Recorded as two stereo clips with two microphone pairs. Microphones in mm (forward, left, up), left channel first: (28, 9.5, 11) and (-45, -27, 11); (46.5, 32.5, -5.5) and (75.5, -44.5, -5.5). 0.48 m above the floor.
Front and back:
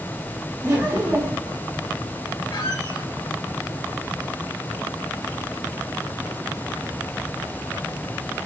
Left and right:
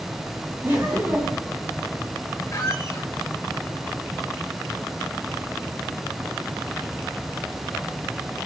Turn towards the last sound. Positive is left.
turn(degrees=55)